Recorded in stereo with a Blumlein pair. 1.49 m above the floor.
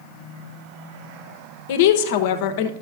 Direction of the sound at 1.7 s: 50° left.